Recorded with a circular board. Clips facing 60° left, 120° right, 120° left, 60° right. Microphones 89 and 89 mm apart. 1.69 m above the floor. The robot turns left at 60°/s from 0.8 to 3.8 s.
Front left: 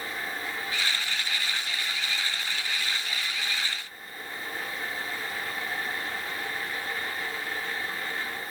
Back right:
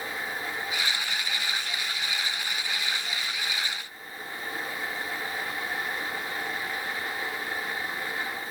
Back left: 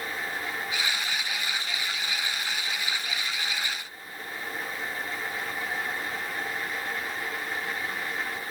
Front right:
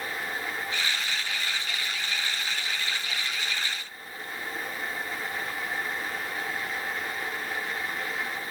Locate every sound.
Only background noise.